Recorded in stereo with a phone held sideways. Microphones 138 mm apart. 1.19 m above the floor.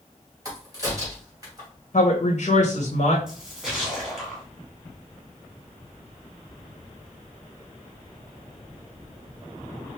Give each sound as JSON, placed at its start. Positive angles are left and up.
{"t": 0.5, "sound": "a crack", "side_deg": -30, "distance_m": 2.0}
{"t": 1.9, "sound": "a woman speaking", "side_deg": 60, "distance_m": 1.1}
{"t": 3.3, "sound": "a splash", "side_deg": -5, "distance_m": 1.6}